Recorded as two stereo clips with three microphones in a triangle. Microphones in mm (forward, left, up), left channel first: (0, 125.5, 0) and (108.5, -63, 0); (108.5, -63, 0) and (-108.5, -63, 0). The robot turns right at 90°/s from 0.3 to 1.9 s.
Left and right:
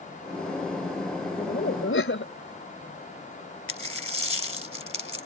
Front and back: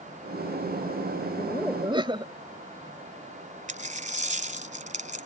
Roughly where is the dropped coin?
Behind left.